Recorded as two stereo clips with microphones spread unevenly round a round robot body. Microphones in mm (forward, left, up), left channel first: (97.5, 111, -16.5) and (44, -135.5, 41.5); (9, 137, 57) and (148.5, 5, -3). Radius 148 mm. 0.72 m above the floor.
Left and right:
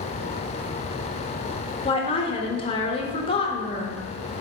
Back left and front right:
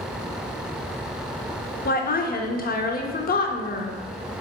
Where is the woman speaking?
100° left, 0.9 m.